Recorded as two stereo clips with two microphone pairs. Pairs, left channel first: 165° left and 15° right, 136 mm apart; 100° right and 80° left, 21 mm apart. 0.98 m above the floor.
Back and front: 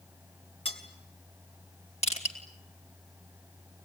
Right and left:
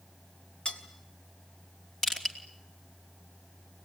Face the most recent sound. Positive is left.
turn(degrees=-160)